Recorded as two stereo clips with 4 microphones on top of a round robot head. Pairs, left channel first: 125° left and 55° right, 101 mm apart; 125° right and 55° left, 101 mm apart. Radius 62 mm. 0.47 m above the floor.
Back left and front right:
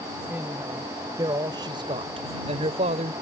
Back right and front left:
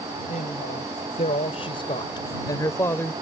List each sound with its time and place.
0.3 s a woman speaking: 130° right; by 3.1 s 55° right